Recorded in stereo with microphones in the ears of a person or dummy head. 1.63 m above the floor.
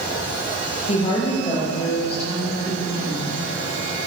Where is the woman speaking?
40° left (ahead or behind), 2 m; by 3.4 s 35° left (ahead or behind), 5 m.